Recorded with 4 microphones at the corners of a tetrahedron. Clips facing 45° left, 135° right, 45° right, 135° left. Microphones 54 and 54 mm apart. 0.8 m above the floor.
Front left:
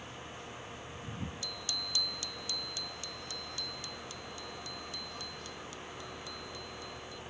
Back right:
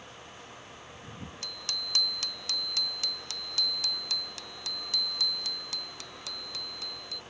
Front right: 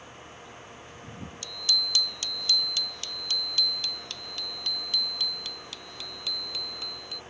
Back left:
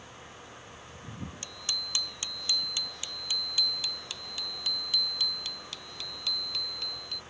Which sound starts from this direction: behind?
A bicycle bell, at 1.4 s.